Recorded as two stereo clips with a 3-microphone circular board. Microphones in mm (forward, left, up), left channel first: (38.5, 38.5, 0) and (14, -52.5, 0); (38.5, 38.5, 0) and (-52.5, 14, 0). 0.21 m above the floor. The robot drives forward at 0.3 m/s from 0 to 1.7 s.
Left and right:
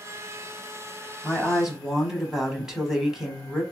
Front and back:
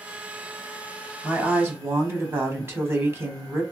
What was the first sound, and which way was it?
A woman speaking, 175° left.